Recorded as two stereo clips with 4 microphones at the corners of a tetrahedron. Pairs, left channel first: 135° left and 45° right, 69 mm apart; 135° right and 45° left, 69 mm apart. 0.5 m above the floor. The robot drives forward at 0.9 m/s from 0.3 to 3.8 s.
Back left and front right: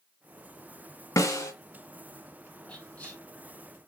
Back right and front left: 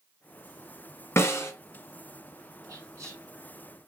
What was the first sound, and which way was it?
A snare drum, 175° left.